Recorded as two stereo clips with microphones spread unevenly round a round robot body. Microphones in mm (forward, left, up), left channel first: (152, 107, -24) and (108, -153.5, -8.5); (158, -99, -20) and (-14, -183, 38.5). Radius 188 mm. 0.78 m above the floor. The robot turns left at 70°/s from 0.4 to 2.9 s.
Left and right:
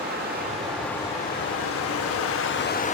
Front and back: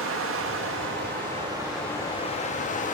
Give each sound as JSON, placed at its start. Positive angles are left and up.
{"t": 0.0, "sound": "running water", "azimuth_deg": -160, "distance_m": 0.8}